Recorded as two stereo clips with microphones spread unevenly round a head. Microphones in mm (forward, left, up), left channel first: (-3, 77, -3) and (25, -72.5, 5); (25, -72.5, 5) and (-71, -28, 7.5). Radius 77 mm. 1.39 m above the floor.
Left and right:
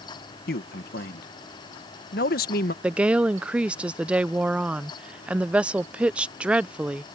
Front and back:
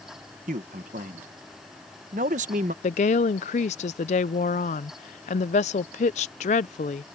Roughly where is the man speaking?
Behind left.